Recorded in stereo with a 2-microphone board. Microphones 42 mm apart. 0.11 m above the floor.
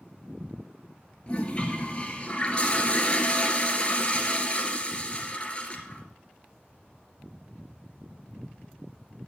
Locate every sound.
1.3 s a toilet flushing: 25° left (ahead or behind), 1.8 m